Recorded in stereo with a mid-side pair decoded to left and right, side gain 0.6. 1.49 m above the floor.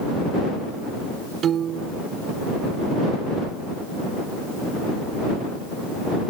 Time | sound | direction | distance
1.4 | a piano | 50° right | ?